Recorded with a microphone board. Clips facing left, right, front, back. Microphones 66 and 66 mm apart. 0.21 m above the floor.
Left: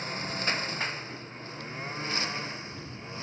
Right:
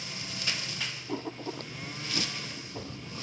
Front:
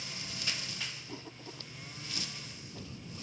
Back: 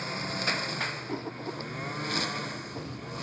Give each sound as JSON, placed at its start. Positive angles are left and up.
{"t": 0.0, "sound": "a lawn mower", "azimuth_deg": 140}
{"t": 1.1, "sound": "writing", "azimuth_deg": -125}